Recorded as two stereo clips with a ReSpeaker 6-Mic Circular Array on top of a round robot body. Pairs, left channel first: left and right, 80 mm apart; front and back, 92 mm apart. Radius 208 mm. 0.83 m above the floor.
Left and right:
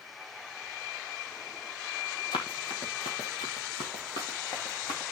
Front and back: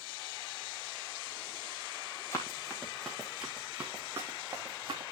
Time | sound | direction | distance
2.3 | running footsteps | 60° left | 1.7 m